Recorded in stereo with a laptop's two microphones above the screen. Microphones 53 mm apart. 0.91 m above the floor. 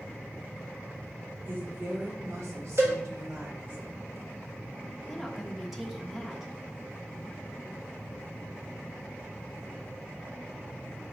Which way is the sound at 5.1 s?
5° right (ahead or behind).